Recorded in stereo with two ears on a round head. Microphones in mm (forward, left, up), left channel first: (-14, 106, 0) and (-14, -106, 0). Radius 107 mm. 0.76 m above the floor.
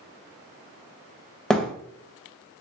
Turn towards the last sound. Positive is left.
turn(degrees=5)  # may be behind; listen again after turning